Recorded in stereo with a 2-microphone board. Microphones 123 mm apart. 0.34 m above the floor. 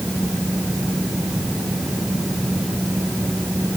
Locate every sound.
Only background noise.